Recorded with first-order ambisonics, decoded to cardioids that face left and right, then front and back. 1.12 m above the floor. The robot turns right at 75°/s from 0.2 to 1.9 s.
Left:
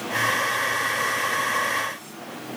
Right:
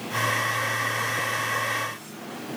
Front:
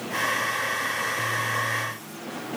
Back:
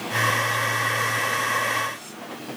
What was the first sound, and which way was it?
Only background noise.